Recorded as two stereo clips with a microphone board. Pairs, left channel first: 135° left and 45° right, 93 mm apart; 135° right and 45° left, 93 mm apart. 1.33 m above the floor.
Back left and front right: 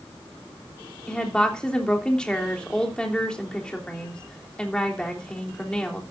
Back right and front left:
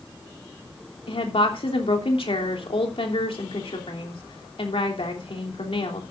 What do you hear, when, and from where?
1.1 s a woman speaking: 145° right, 3 m